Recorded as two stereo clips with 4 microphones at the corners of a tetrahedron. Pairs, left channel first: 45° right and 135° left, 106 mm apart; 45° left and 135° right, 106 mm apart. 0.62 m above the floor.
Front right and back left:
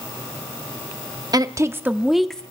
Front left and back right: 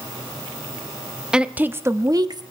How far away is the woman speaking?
About 0.8 m.